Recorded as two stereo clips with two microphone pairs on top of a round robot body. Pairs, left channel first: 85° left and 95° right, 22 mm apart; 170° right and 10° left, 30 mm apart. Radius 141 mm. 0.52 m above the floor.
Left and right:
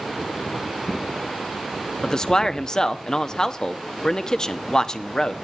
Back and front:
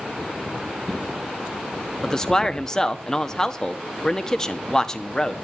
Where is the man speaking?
125° left, 1.1 m.